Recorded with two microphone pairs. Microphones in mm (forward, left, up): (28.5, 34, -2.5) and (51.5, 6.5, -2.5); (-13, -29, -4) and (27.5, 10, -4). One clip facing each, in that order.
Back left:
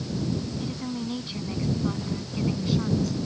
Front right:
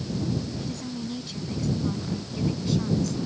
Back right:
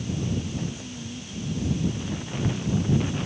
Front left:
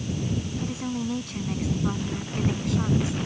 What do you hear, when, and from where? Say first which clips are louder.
0.6 s a woman speaking: back left 2 dB, front left 5 dB; 65° left; by 3.2 s 50° left